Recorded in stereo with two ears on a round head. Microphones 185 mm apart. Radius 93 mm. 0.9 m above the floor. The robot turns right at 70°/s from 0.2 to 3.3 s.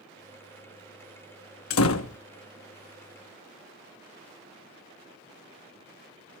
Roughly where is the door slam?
Left.